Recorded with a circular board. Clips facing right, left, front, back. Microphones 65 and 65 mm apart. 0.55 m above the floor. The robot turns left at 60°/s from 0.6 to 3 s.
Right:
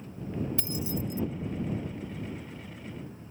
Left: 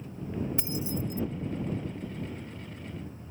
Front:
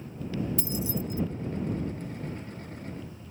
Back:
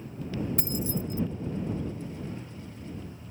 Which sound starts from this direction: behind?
Keys jangling, at 0.6 s.